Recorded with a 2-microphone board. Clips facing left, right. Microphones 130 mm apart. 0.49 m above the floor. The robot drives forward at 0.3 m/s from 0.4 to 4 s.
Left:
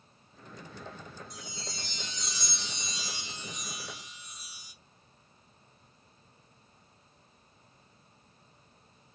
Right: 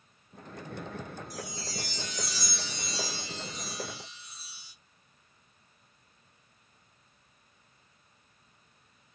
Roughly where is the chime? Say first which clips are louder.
Right 5 dB; left.